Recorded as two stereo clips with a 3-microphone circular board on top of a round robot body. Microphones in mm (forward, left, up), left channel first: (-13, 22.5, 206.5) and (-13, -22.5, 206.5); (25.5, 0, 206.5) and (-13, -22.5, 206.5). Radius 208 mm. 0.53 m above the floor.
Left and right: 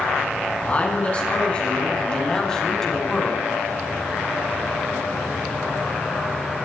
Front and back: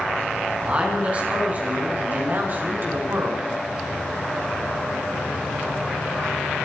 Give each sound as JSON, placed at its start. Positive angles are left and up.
{"t": 0.6, "sound": "a man speaking", "azimuth_deg": 150, "distance_m": 7.5}